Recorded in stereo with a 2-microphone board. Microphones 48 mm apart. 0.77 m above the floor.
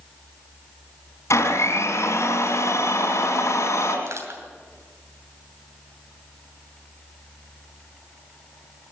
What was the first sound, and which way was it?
A blender, 80° left.